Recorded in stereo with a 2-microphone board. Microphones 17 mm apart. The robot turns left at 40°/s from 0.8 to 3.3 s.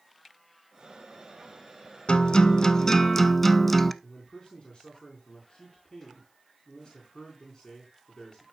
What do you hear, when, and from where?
2.1 s a guitar: 60° left, 0.6 m; by 3.9 s 10° left, 0.6 m
4.0 s a man speaking: 40° left (ahead or behind), 4 m